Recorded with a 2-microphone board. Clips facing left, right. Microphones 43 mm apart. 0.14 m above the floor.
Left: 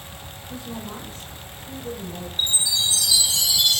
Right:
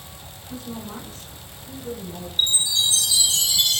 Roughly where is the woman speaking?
Centre.